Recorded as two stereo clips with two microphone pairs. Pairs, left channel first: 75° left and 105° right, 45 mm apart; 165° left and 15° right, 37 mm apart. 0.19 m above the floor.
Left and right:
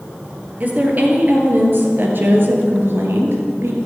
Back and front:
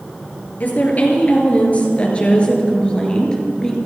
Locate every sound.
0.6 s a woman speaking: 160° right, 3.5 m; by 3.8 s 120° right, 3 m